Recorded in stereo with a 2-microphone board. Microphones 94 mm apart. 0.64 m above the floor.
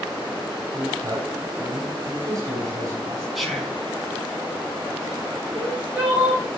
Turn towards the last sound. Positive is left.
turn(degrees=-15)  # may be behind; listen again after turning